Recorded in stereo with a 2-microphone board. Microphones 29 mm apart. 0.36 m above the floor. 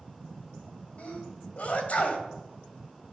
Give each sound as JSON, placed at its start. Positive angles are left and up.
{"t": 1.0, "sound": "a sneeze", "side_deg": 55, "distance_m": 1.8}